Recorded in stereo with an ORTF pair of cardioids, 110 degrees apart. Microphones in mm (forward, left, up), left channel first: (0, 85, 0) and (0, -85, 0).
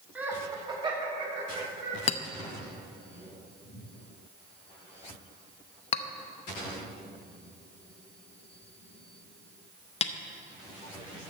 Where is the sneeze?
I don't hear a sneeze.